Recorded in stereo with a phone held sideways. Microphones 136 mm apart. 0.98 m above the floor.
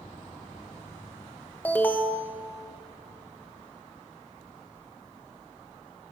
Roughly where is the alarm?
Centre.